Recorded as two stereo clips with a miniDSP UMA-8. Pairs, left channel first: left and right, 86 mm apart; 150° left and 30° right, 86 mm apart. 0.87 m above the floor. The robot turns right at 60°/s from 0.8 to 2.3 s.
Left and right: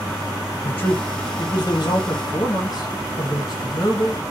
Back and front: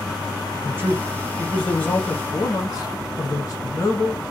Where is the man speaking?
25° left, 1.2 m; by 4.2 s 115° left, 1.2 m.